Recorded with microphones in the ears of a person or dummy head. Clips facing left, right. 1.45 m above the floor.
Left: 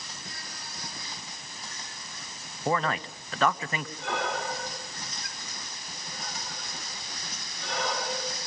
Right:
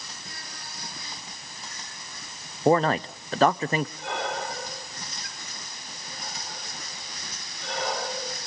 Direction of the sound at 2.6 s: 40° right (ahead or behind).